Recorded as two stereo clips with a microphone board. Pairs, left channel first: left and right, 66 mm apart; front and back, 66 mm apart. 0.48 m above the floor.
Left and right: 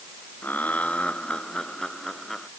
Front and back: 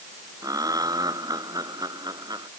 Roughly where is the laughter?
Behind left.